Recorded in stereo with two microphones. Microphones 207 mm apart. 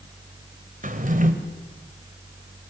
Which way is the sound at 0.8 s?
40° right (ahead or behind).